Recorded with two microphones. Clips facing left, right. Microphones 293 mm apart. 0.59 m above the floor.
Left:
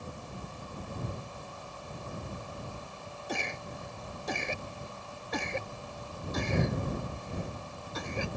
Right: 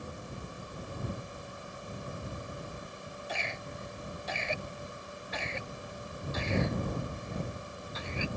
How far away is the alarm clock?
No alarm clock in this recording.